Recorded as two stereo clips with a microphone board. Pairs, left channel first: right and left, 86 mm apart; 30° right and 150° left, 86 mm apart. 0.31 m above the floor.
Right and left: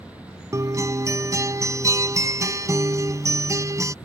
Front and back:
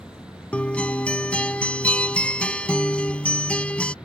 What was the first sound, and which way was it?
A guitar, 45° left.